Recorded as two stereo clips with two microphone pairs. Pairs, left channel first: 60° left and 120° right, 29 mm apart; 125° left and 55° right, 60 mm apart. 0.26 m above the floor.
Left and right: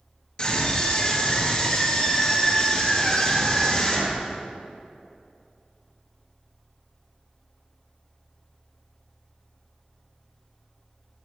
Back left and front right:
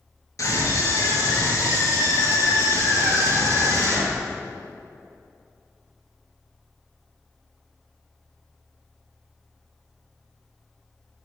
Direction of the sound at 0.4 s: 110° left.